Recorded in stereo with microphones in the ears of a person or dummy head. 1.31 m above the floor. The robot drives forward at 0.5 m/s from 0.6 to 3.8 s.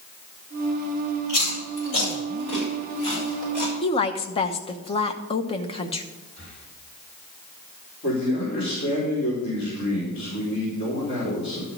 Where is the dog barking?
No dog barking in this recording.